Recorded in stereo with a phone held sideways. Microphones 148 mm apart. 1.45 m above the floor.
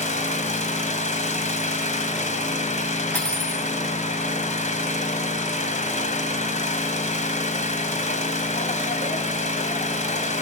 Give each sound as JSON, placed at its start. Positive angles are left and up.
{"t": 0.0, "sound": "an engine running", "side_deg": 55, "distance_m": 2.0}
{"t": 3.1, "sound": "cutlery clinking", "side_deg": 10, "distance_m": 5.0}